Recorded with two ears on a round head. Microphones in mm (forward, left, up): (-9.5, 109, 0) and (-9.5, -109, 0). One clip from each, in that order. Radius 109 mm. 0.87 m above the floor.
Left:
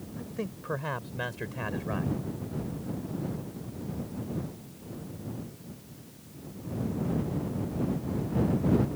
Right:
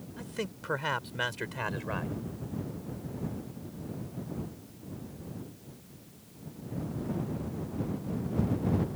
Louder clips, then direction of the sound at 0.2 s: Right 1 dB; 75° right (ahead or behind).